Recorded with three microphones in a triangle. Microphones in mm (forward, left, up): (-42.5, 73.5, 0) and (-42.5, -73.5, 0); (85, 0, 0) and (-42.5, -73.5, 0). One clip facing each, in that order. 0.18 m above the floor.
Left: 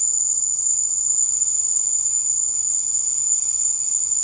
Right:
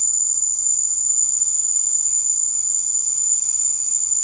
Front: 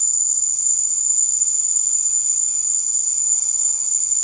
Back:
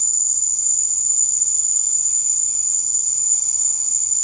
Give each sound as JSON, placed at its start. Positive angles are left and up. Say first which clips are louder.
{"t": 0.0, "sound": "an insect", "louder": "left 2 dB, back 3 dB", "azimuth_deg": -130}